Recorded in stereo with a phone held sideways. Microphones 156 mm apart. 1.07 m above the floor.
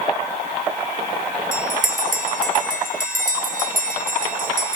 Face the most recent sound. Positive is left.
turn(degrees=-60)  # may be behind; listen again after turning